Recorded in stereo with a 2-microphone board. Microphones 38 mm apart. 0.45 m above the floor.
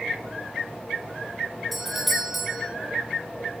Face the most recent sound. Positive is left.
turn(degrees=-5)  # may be behind; listen again after turning